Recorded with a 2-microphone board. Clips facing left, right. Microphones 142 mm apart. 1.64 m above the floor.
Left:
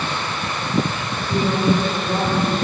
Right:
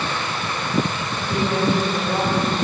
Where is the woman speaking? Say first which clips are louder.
Left 1 dB; 10° right (ahead or behind), 10 m.